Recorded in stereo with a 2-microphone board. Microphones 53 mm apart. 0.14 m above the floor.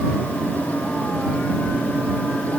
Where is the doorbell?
I don't hear a doorbell.